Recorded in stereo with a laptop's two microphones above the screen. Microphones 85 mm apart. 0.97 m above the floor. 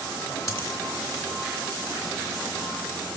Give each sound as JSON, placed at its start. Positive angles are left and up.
{"t": 0.5, "sound": "a dropped coin", "side_deg": 45, "distance_m": 2.0}